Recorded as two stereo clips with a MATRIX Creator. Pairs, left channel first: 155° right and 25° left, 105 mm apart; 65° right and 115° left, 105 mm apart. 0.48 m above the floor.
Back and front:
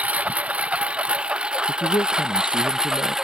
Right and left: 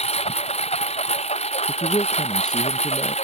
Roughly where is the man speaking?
Behind right.